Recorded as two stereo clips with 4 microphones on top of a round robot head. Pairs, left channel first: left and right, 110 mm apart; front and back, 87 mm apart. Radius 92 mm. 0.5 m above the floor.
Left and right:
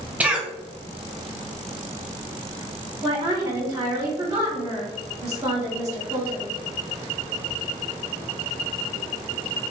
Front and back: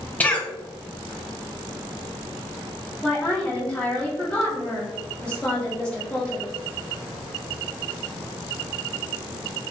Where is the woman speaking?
60° right, 1.3 m.